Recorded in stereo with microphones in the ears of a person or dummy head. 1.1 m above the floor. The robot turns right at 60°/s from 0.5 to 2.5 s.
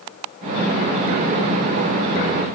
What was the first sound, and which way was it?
Only background noise.